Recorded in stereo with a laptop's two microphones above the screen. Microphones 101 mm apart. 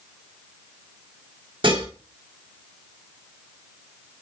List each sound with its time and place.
1.6 s dishes clattering: 55° right (ahead or behind), 1.7 m